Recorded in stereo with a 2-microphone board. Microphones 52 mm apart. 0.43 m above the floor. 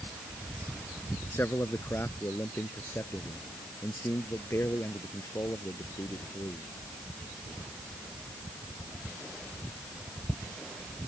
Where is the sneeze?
I don't hear a sneeze.